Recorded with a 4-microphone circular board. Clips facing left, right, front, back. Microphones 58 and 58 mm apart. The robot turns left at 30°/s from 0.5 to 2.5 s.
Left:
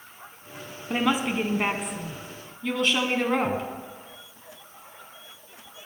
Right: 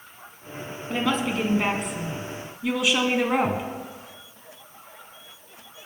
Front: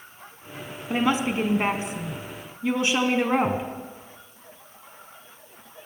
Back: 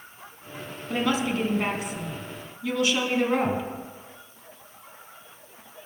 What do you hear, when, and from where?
0.9 s a woman speaking: 35° left, 1.2 m; by 3.6 s 15° right, 1.2 m